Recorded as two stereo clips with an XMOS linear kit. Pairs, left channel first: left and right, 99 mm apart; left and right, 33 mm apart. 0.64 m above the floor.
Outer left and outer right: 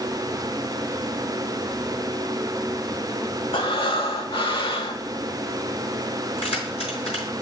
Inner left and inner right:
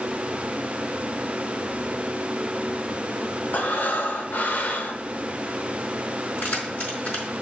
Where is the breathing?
60° left (ahead or behind), 1.0 m.